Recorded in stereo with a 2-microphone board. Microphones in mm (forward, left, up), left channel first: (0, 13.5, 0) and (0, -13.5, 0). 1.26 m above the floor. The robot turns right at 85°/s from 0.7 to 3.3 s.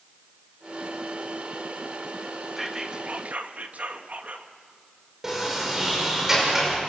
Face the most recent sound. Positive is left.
turn(degrees=-20)  # may be behind; listen again after turning